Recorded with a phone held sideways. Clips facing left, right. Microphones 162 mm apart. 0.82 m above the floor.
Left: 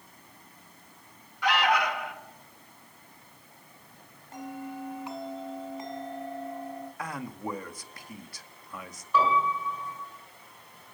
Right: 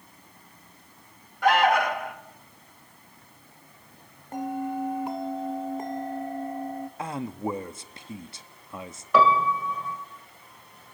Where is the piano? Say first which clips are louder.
Right 5 dB; 80° right, 2.5 m.